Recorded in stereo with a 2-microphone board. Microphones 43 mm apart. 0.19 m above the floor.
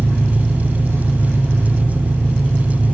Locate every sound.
0.0 s an engine running: 85° right, 4 m